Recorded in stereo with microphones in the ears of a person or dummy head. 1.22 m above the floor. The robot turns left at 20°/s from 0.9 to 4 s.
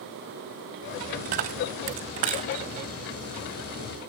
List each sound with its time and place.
1.2 s a dropped coin: 40° right (ahead or behind), 0.7 m; by 2.6 s 30° right (ahead or behind), 0.7 m